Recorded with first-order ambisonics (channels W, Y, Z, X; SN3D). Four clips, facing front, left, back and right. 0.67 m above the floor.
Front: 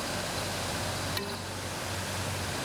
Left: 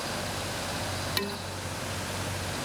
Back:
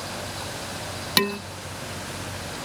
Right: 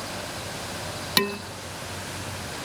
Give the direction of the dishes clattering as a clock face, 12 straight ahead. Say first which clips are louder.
Right 11 dB, back 12 dB; 5 o'clock.